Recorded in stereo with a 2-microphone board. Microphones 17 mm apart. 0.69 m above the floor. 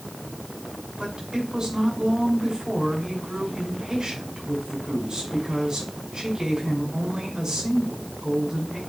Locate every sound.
1.0 s a woman speaking: 40° right (ahead or behind), 6 m